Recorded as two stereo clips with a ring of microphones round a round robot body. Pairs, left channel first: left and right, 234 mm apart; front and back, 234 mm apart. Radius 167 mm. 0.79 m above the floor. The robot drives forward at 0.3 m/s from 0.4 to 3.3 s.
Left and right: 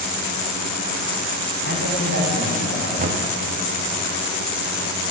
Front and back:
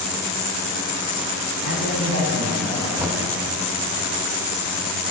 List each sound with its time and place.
1.6 s a man speaking: 135° right, 2 m; by 2.9 s 140° right, 2.5 m
3.0 s knocking: 100° right, 0.7 m; by 3.2 s 110° right, 0.7 m